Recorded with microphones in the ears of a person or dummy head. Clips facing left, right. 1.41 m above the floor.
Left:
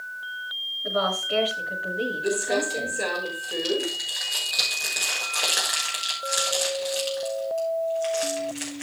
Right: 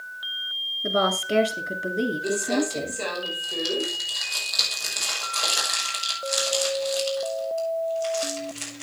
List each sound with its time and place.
0.8 s a woman speaking: 55° right (ahead or behind), 3 m
2.2 s crumpling: 20° left (ahead or behind), 6 m